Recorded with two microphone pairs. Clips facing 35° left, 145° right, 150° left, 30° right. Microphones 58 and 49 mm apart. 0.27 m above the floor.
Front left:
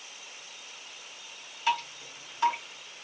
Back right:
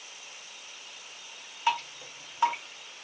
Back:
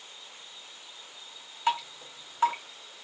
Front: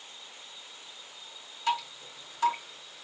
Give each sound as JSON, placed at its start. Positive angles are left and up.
{"t": 1.7, "sound": "dripping", "azimuth_deg": 170, "distance_m": 1.3}